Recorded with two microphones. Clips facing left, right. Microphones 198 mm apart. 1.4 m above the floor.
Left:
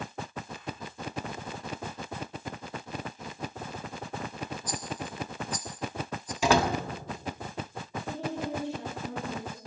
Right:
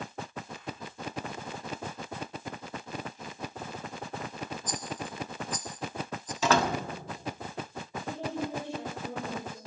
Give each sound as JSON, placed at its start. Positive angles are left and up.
{"t": 4.7, "sound": "a rattle", "side_deg": 10, "distance_m": 1.5}
{"t": 6.4, "sound": "a door slam", "side_deg": 10, "distance_m": 1.8}
{"t": 8.1, "sound": "a woman speaking", "side_deg": -70, "distance_m": 7.0}